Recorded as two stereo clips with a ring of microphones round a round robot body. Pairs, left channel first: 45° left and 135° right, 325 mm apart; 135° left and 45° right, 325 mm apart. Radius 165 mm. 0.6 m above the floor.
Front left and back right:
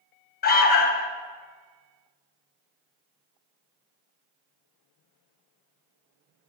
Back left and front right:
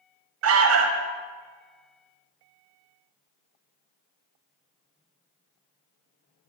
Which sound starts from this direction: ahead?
An alarm, at 0.4 s.